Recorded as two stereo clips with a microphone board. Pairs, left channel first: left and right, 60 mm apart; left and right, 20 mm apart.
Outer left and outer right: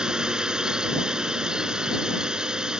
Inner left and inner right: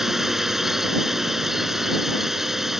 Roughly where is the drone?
Centre.